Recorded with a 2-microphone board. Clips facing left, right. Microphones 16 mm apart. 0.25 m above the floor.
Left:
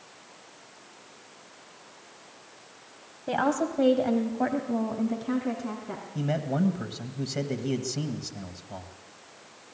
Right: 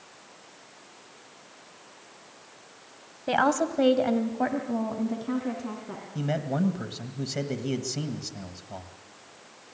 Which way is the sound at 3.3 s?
30° right (ahead or behind).